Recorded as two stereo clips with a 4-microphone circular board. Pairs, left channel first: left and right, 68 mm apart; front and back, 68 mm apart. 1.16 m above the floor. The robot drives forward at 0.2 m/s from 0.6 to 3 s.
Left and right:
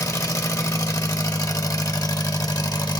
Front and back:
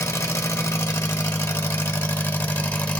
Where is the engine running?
50° left, 1.4 m; by 3.0 s 70° left, 1.2 m.